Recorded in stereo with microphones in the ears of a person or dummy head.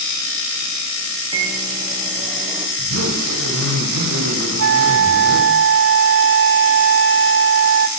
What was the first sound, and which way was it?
A microwave, 25° right (ahead or behind).